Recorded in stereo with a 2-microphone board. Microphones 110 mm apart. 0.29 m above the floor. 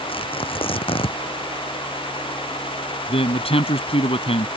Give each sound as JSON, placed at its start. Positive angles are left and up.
{"t": 0.1, "sound": "tearing paper", "side_deg": 55}
{"t": 3.1, "sound": "a man speaking", "side_deg": 60}